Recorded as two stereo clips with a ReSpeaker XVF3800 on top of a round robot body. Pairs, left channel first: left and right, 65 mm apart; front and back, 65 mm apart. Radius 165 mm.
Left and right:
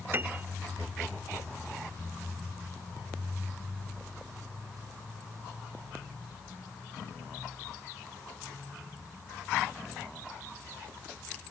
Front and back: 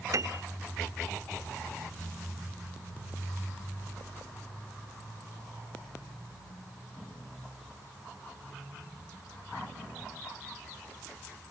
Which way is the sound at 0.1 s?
145° right.